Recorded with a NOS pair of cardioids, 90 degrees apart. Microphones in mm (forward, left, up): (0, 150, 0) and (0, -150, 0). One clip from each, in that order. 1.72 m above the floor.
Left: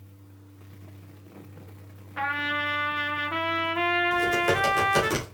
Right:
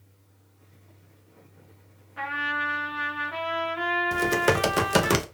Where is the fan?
65° left, 1.0 m.